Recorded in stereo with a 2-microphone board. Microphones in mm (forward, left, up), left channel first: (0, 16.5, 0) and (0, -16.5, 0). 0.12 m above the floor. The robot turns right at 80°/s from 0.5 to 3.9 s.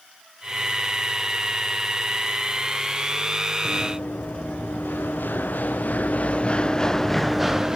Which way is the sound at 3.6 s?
75° left (ahead or behind).